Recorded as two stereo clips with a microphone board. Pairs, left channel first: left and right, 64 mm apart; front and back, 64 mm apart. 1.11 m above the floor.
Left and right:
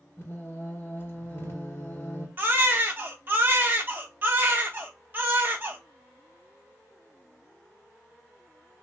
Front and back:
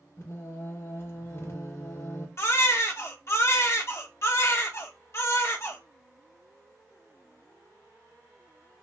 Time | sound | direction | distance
0.2 | singing | 40° left | 1.8 m
2.4 | a baby crying | 35° right | 0.9 m